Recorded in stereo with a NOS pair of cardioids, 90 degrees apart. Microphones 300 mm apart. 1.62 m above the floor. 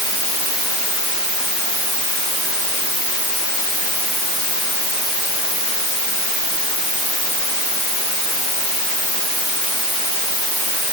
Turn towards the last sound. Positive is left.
No sound to turn to.